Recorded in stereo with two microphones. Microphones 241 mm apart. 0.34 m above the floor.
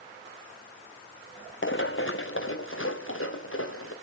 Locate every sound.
1.6 s running footsteps: 55° left (ahead or behind), 1.3 m; by 3.9 s 60° left (ahead or behind), 4 m